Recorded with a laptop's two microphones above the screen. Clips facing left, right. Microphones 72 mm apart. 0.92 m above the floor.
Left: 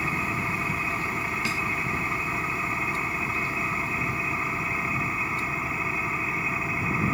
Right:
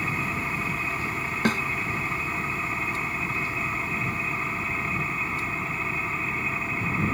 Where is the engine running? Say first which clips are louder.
Left 1 dB; 5° left (ahead or behind).